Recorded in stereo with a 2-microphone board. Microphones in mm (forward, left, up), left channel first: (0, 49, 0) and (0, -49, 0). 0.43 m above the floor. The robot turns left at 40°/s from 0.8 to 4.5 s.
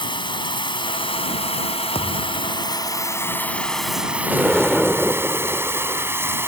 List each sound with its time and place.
0.0 s running water: 125° left; by 6.5 s 25° right
1.9 s a thud: 70° left (ahead or behind); by 2.6 s 45° left (ahead or behind)
4.3 s an explosion: 5° right (ahead or behind); by 6.1 s centre (ahead or behind)